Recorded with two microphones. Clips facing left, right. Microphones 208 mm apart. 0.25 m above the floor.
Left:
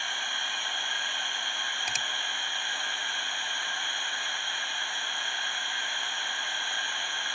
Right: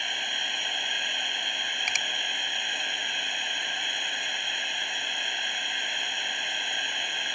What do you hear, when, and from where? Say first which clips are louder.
0.0 s running water: right 2 dB; 20° right (ahead or behind)
1.9 s a finger snap: even; 30° left (ahead or behind)